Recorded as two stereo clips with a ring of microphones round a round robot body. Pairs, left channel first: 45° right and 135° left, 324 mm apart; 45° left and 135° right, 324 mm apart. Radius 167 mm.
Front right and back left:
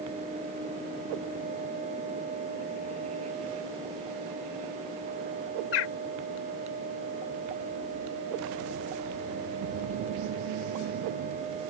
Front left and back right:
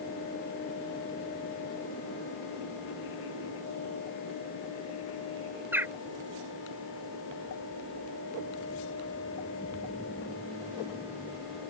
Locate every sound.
5.7 s a bird: 50° right